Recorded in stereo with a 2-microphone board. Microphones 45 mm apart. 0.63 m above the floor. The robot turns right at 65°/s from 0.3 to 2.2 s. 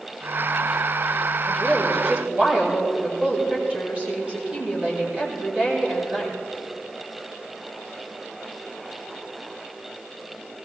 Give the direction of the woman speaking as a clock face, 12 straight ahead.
7 o'clock.